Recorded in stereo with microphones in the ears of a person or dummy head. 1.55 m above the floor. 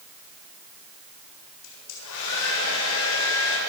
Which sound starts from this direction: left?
A hair dryer, at 1.6 s.